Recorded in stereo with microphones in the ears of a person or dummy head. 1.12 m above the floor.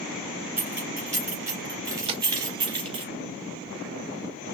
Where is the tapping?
30° right (ahead or behind), 0.8 m.